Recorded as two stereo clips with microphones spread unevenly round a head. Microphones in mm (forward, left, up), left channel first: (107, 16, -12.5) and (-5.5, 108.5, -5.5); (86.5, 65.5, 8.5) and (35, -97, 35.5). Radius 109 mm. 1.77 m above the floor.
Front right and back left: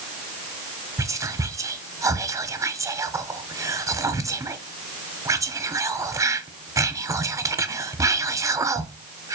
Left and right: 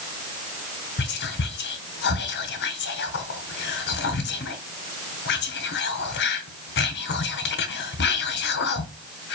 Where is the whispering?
80° left, 0.8 m.